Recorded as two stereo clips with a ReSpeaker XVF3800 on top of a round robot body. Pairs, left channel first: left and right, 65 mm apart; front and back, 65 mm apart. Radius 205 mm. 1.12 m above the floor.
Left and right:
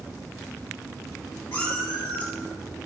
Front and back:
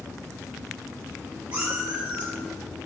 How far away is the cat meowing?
About 1.9 m.